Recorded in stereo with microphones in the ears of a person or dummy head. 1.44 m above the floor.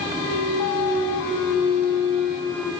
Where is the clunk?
Centre (ahead or behind), 1.8 m.